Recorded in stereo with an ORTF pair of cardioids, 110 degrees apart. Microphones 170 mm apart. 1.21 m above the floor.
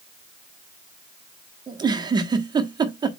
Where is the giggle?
25° right, 1.4 m.